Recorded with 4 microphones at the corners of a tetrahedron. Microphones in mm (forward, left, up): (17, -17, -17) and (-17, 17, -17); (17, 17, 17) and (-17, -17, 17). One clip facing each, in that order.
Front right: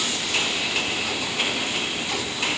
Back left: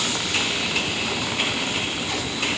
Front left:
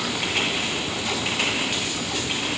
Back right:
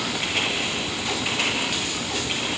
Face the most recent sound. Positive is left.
No sound to turn to.